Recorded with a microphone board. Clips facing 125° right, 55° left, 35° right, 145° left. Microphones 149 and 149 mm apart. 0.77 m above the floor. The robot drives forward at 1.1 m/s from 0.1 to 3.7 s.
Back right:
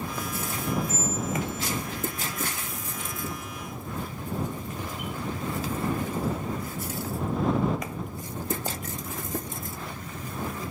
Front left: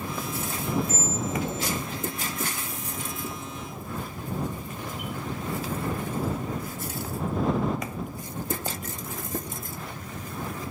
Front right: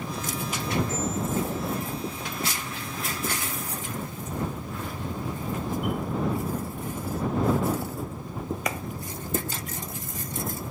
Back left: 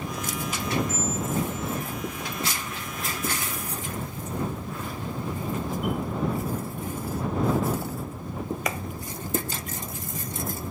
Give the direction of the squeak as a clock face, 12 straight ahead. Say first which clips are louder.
Even, even; 11 o'clock.